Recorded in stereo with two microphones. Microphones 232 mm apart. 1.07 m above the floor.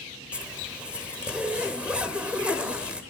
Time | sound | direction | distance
0.3 | a zipper | 5° right (ahead or behind) | 0.8 m